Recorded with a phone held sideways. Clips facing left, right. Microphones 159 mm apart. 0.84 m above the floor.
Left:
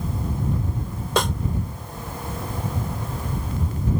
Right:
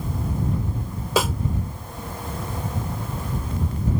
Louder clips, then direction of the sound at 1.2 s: Right 1 dB; 5° right (ahead or behind).